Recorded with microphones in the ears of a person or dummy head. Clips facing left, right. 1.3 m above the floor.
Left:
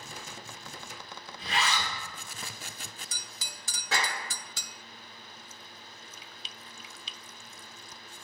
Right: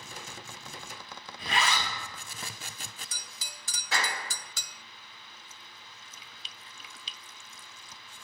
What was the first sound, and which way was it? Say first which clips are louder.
A zipper: right 1 dB; 40° right (ahead or behind).